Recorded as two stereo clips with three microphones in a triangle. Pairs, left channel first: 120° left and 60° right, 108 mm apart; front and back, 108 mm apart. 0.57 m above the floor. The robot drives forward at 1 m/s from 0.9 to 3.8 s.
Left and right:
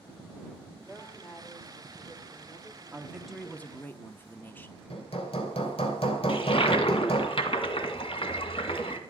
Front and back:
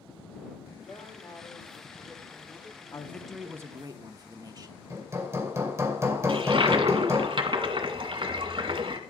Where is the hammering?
120° left, 2.5 m.